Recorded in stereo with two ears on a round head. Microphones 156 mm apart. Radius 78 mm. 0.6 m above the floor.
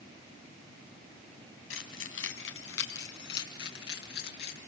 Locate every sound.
1.7 s keys jangling: 85° left, 3 m; by 4.6 s 60° left (ahead or behind), 5.5 m